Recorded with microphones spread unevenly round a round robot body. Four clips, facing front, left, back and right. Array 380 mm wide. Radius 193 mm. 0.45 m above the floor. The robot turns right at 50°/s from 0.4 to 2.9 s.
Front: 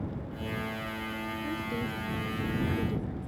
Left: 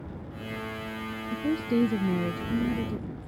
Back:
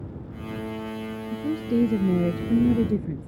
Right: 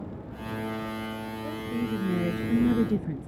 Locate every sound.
1.3 s a woman speaking: 135° left; by 3.3 s 145° right